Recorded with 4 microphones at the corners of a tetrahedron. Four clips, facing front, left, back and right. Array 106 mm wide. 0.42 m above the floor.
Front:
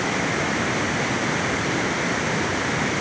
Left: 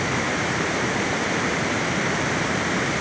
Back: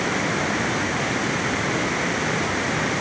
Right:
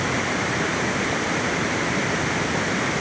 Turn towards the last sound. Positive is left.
No sound to turn to.